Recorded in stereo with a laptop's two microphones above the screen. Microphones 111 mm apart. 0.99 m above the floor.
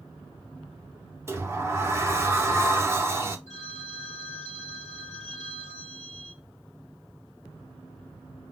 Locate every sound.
1.3 s a sliding door: 25° right (ahead or behind), 0.7 m
3.5 s a phone ringing: 80° right, 1.7 m